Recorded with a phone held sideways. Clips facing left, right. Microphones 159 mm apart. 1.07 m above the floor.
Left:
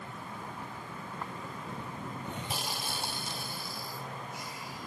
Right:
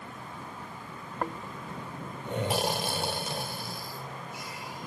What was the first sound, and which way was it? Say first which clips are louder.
Snoring: right 9 dB; 80° right.